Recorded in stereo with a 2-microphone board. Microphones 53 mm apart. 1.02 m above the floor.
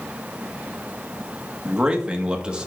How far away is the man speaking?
About 1.2 m.